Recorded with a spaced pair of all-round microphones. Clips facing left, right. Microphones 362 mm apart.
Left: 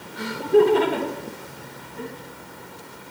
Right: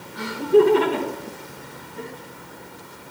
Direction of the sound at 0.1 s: 25° right (ahead or behind).